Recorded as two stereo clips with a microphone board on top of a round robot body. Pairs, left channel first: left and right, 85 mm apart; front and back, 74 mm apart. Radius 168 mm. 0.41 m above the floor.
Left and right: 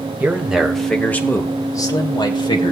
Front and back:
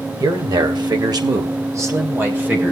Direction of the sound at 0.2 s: 165° right.